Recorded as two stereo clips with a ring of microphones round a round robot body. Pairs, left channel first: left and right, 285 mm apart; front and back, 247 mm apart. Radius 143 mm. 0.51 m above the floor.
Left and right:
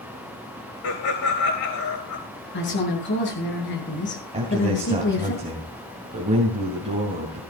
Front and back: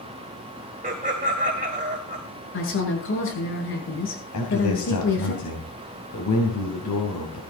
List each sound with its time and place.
0.8 s laughter: 125° left, 3 m
2.5 s a woman speaking: 35° left, 8 m
4.3 s a man speaking: 20° right, 3 m